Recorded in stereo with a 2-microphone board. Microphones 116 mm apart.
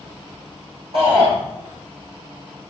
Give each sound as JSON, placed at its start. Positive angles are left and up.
{"t": 0.9, "sound": "a shout", "side_deg": -70, "distance_m": 6.0}